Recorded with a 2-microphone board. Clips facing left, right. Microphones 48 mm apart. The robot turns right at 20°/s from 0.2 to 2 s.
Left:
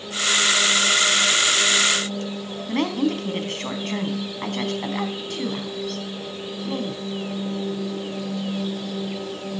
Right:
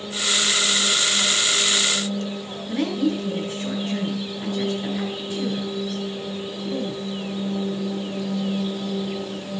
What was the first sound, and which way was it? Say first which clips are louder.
A woman speaking: even; 65° left (ahead or behind).